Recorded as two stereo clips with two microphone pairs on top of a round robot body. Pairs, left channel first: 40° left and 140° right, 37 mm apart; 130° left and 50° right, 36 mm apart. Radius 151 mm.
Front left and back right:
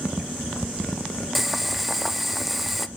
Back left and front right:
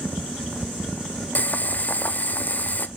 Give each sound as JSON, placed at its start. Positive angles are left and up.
{"t": 1.4, "sound": "boiling", "azimuth_deg": 140, "distance_m": 0.6}